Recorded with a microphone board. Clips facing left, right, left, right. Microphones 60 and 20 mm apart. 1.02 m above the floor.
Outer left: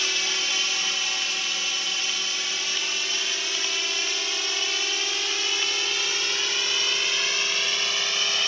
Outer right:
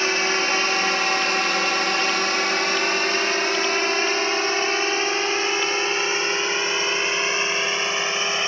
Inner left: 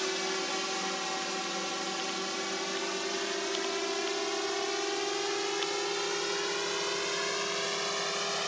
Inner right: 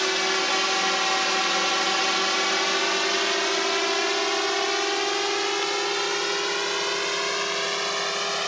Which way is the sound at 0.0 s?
45° right (ahead or behind).